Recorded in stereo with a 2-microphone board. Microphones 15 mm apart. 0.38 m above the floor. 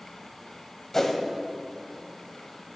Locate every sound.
0.9 s a whoosh: 20° left (ahead or behind), 1.1 m